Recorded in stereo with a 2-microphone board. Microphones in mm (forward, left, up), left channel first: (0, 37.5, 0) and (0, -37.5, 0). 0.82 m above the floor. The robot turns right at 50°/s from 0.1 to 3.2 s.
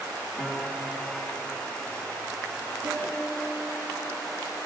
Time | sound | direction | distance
0.4 | a piano | 10° right | 2.5 m
2.8 | a piano | 25° right (ahead or behind) | 7 m